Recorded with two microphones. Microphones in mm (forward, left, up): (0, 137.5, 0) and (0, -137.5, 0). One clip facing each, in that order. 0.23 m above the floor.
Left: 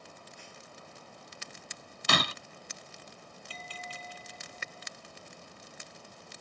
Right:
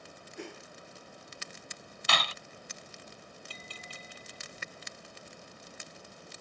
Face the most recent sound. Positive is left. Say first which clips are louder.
# left 3 dB
turn(degrees=-50)  # may be behind; listen again after turning